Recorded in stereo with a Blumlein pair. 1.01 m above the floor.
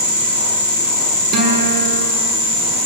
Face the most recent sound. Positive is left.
turn(degrees=-35)